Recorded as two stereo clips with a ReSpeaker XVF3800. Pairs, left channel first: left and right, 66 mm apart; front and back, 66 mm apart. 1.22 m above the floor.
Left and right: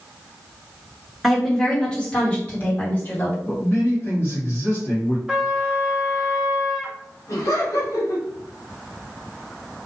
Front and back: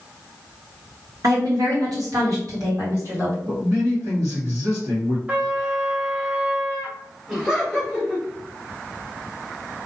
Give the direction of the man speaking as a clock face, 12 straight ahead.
7 o'clock.